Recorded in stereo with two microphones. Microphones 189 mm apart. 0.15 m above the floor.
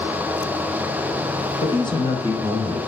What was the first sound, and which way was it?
A man speaking, 30° left (ahead or behind).